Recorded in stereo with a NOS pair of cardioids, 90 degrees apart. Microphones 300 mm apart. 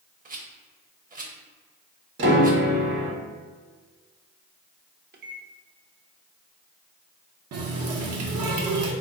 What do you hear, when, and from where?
0.2 s a rattle: 30° right, 0.9 m
2.2 s a piano: 40° right, 1.2 m
5.1 s a microwave: 35° right, 0.7 m
7.5 s a running tap: 60° right, 0.9 m